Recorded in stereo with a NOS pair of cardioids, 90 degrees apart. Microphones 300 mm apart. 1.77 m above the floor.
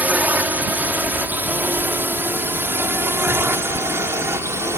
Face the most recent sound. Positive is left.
turn(degrees=-10)